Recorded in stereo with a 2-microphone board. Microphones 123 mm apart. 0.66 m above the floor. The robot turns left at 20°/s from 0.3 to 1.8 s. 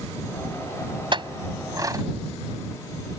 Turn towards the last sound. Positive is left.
turn(degrees=-30)  # may be behind; listen again after turning